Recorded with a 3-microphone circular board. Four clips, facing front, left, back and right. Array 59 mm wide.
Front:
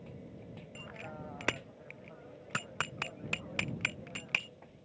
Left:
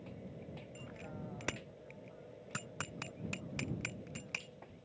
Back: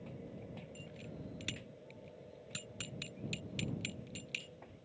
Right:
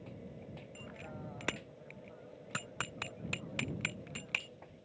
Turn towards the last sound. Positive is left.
turn(degrees=-15)